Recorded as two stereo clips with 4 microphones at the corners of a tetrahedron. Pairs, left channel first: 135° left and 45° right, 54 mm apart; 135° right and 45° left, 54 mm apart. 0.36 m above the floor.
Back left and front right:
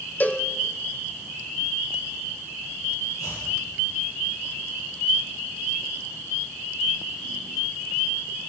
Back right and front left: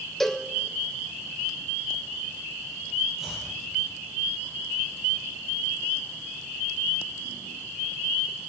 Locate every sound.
0.2 s a cowbell: 145° left, 1.5 m
3.2 s chopping: 130° left, 8 m